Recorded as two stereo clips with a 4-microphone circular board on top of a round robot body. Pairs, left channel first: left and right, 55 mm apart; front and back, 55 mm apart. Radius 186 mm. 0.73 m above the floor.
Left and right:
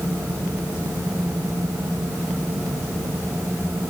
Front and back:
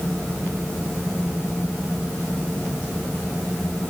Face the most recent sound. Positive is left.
No sound to turn to.